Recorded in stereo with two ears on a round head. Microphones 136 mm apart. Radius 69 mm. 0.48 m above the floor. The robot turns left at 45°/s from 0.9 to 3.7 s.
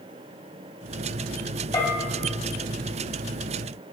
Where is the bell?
20° left (ahead or behind), 1.2 m.